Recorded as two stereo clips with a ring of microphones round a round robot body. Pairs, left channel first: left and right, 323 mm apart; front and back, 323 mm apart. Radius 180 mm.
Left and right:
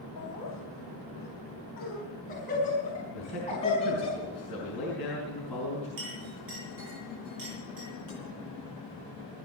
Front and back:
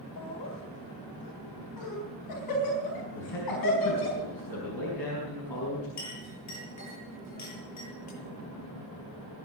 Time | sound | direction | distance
0.2 | laughter | 40° left | 3.5 m
3.1 | a man speaking | 5° left | 5 m
6.0 | a clink | 35° right | 7.5 m